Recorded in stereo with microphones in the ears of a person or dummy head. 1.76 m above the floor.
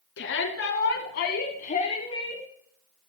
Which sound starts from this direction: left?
A shout, at 0.2 s.